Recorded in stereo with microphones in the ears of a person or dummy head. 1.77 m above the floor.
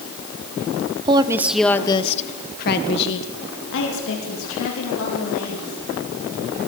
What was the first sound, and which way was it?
A woman speaking, 30° right (ahead or behind).